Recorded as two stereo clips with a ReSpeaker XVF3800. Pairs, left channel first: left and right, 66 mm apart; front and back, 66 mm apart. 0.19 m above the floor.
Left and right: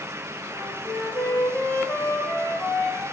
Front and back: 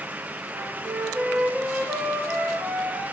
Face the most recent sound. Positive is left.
turn(degrees=130)